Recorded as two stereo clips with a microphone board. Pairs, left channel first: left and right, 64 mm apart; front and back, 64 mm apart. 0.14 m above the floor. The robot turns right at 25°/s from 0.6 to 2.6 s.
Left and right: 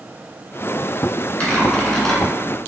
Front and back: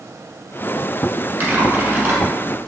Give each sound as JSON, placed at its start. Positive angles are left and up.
{"t": 1.4, "sound": "typing on a keyboard", "azimuth_deg": 145, "distance_m": 1.2}